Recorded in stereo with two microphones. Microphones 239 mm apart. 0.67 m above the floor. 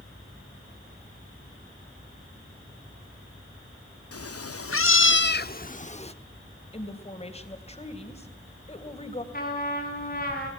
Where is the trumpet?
40° left (ahead or behind), 4.5 m.